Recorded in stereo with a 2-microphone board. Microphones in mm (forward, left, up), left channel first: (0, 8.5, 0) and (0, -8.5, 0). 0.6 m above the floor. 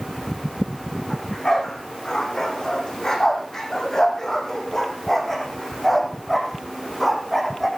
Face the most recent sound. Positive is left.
turn(degrees=5)  # may be behind; listen again after turning